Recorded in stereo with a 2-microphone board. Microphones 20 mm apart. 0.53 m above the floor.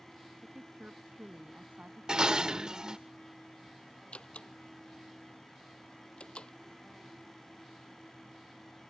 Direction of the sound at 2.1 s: 35° right (ahead or behind).